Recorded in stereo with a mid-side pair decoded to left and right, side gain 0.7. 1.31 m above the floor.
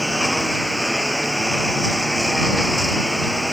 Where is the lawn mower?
Straight ahead.